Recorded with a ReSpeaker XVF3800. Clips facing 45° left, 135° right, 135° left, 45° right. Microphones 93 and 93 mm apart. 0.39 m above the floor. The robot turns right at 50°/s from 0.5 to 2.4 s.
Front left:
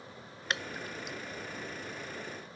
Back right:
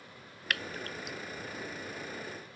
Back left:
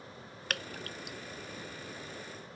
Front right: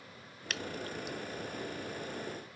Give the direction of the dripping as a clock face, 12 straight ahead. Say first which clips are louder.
Even, front right 2 dB; 8 o'clock.